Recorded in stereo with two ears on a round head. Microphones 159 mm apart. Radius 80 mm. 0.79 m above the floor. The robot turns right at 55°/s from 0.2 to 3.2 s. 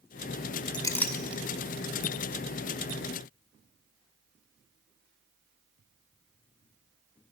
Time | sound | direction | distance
0.7 | a clink | 25° left (ahead or behind) | 0.8 m